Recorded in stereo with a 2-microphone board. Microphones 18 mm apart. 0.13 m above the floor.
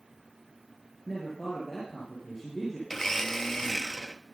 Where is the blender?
20° left (ahead or behind), 0.8 m.